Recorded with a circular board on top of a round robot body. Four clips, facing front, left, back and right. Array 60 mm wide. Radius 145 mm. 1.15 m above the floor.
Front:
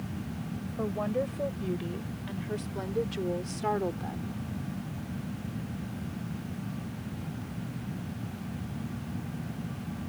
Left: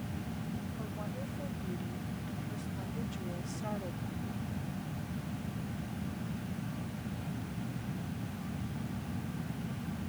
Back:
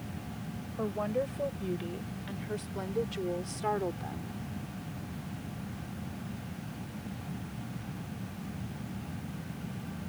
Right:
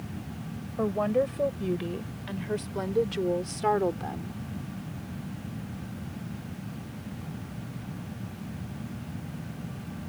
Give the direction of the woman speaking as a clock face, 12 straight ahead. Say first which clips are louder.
Right 15 dB, front 1 dB; 3 o'clock.